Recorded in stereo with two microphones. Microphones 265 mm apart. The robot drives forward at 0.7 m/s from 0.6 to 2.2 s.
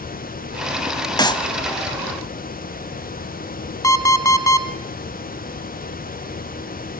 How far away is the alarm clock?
About 1.3 m.